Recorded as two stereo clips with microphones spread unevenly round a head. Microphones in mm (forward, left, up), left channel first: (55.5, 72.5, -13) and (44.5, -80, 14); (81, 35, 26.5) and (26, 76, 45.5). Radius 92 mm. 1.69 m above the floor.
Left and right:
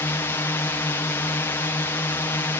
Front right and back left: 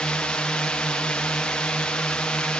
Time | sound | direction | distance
0.0 | a drone | 25° left | ?